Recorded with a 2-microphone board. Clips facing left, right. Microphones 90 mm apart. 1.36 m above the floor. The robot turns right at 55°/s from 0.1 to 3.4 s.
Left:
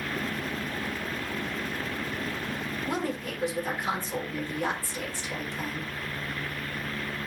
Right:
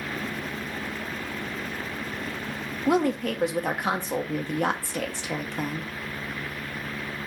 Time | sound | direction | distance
2.9 | a woman speaking | 80° right | 1.6 m